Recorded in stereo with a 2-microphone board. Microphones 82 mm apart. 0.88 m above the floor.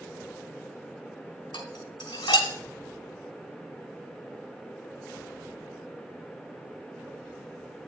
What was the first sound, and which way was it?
Dishes clattering, 75° left (ahead or behind).